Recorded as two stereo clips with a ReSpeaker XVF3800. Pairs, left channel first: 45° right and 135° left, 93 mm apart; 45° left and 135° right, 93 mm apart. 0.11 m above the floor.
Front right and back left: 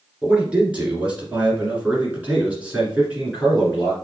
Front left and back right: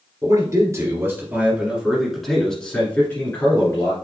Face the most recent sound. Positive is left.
turn(degrees=65)